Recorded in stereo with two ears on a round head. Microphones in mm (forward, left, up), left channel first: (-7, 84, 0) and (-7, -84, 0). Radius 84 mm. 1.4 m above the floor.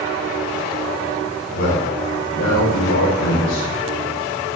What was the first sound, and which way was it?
A man speaking, 80° left.